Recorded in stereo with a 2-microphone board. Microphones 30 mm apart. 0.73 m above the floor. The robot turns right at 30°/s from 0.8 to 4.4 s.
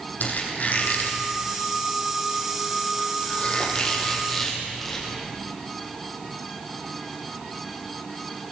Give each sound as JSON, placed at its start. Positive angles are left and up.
{"t": 0.2, "sound": "a squeak", "side_deg": 65, "distance_m": 4.5}